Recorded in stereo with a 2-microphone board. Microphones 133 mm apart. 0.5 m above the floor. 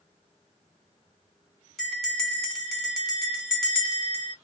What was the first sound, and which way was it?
A bell, 5° left (ahead or behind).